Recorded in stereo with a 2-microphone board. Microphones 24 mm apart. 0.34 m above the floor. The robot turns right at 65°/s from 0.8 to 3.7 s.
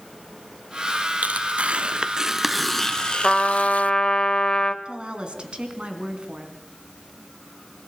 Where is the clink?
No clink in this recording.